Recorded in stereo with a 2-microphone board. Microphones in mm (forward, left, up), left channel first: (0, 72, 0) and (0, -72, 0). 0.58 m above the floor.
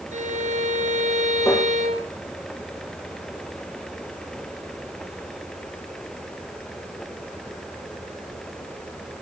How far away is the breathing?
I don't hear breathing.